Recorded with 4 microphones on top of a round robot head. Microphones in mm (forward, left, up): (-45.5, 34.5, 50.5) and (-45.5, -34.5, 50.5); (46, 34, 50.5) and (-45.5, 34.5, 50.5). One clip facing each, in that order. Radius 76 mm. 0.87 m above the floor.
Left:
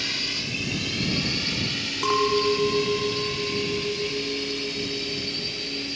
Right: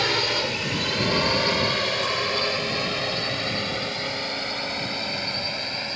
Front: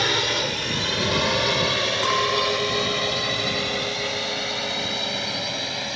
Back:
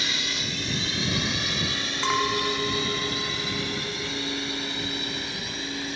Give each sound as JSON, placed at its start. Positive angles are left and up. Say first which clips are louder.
{"t": 0.0, "sound": "a drone", "louder": "right 8 dB, front 9 dB", "azimuth_deg": -45}
{"t": 2.0, "sound": "a clink", "louder": "left 4 dB, front 1 dB", "azimuth_deg": 85}